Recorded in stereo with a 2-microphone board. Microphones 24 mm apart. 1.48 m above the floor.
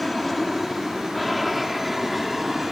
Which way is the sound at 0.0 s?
10° left (ahead or behind).